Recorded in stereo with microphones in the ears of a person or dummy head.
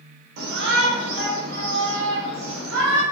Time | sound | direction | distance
0.4 | a shout | 55° right (ahead or behind) | 3 m